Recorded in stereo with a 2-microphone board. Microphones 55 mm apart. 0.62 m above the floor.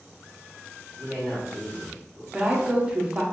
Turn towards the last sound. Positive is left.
turn(degrees=-15)  # may be behind; listen again after turning